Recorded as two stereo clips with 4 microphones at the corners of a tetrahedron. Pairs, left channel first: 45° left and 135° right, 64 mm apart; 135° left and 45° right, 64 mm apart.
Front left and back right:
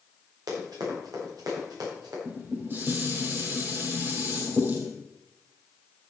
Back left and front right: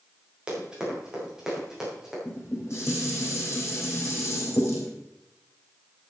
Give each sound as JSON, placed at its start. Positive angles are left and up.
{"t": 0.5, "sound": "running footsteps", "azimuth_deg": -120, "distance_m": 6.0}
{"t": 2.2, "sound": "dishes clattering", "azimuth_deg": 175, "distance_m": 3.5}